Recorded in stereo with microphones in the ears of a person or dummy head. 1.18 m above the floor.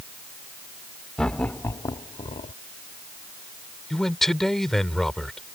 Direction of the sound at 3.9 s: Centre (ahead or behind).